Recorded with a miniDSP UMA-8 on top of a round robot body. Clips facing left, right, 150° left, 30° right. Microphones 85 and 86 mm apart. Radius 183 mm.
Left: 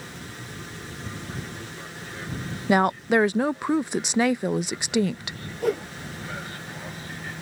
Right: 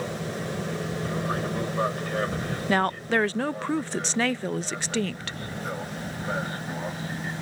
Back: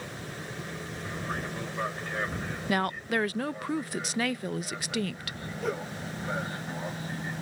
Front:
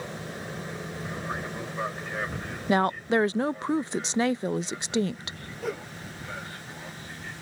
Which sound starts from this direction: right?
An aircraft, at 0.0 s.